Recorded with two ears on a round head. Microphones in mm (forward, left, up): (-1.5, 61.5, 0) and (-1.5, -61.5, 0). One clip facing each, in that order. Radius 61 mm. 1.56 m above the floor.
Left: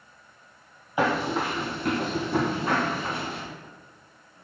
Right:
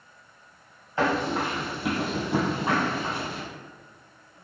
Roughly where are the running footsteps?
Centre.